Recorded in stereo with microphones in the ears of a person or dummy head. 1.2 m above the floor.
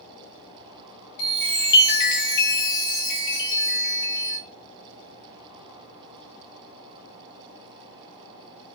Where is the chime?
65° left (ahead or behind), 0.8 m.